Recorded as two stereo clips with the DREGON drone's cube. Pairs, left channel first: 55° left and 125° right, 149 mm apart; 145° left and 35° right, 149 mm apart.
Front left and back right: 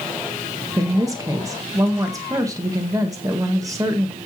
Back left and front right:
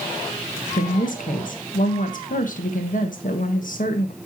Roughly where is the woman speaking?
Behind.